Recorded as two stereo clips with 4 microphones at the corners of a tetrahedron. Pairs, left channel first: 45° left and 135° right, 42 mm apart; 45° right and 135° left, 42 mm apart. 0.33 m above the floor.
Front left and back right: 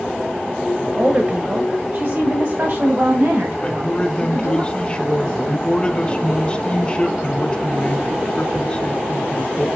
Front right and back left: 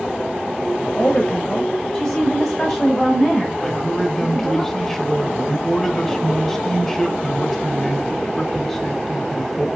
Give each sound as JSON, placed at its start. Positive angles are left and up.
{"t": 0.9, "sound": "a woman speaking", "azimuth_deg": -100, "distance_m": 1.1}
{"t": 3.6, "sound": "a man speaking", "azimuth_deg": 25, "distance_m": 1.1}